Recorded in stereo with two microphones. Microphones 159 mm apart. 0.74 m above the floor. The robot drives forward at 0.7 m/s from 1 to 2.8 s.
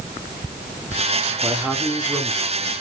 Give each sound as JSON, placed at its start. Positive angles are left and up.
{"t": 1.4, "sound": "a man speaking", "side_deg": -5, "distance_m": 1.5}